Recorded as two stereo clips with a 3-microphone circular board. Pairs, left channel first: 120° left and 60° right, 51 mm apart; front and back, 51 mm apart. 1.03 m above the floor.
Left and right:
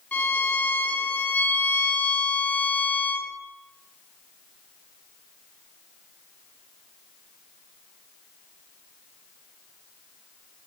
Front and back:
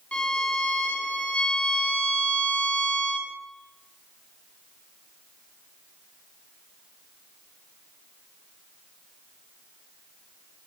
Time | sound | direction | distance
0.1 | a violin | 65° left | 2.5 m